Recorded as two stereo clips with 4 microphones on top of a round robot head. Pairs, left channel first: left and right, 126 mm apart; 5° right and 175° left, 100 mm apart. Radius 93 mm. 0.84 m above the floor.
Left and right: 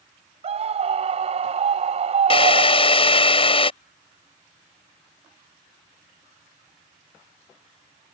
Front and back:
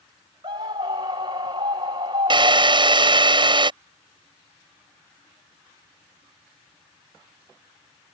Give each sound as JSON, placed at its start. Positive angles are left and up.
{"t": 0.4, "sound": "a scream", "azimuth_deg": -125}
{"t": 2.3, "sound": "a drill", "azimuth_deg": 135}